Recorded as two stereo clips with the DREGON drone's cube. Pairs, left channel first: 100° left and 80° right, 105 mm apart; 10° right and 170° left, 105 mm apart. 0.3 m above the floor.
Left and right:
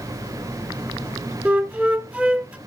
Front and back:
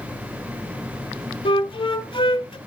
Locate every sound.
1.4 s a flute: 10° right, 1.1 m